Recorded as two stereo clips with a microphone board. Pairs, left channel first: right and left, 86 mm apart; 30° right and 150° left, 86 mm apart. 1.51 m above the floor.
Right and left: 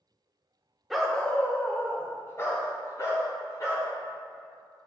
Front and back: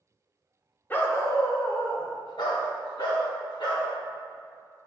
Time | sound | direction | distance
0.9 | a dog barking | straight ahead | 1.2 m